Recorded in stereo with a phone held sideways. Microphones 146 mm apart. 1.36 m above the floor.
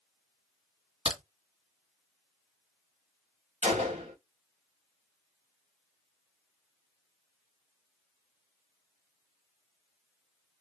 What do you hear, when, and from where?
1.1 s a crack: 45° right (ahead or behind), 2 m
3.6 s a gunshot: 45° right (ahead or behind), 1.2 m